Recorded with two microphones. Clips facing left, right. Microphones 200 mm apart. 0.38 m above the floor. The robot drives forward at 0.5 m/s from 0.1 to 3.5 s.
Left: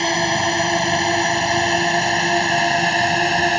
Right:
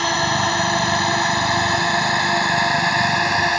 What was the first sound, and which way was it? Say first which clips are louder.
A drone: left 2 dB; 20° left (ahead or behind).